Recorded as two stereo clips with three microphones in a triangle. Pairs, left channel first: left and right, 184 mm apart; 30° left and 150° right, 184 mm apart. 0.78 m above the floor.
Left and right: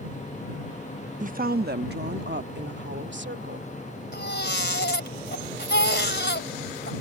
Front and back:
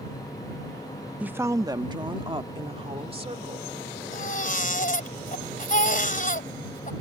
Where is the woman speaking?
70° right; by 3.7 s 95° right.